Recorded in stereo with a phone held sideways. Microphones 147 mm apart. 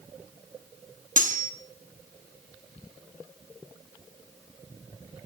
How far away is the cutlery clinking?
About 0.9 m.